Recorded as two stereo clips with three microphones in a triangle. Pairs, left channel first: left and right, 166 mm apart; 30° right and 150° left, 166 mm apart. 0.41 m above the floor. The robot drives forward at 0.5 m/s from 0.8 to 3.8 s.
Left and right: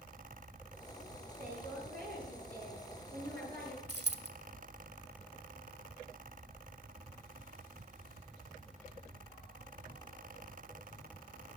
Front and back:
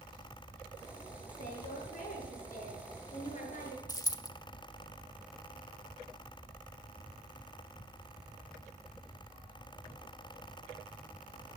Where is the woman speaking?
60° right, 7.5 m; by 3.8 s 70° right, 7 m.